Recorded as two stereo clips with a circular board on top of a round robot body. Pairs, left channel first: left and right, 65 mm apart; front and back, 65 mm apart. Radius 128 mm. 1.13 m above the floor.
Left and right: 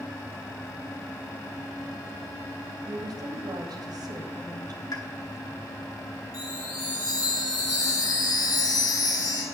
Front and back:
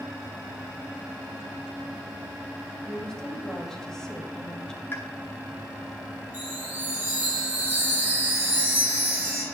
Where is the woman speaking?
85° right, 2.5 m.